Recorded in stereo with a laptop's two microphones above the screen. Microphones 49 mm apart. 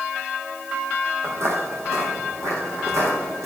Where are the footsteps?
60° right (ahead or behind), 2 m; by 3.5 s 70° right (ahead or behind), 4 m.